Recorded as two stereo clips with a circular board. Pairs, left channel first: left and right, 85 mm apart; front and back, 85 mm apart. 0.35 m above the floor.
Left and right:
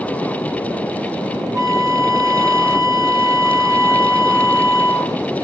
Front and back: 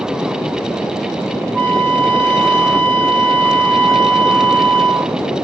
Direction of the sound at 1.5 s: 70° right.